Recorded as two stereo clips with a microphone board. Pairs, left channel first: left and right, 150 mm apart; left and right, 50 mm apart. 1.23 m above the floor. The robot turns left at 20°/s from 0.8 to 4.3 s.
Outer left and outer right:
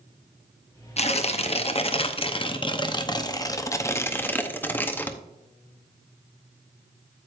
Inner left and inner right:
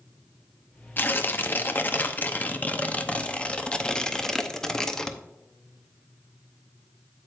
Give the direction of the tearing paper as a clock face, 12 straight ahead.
9 o'clock.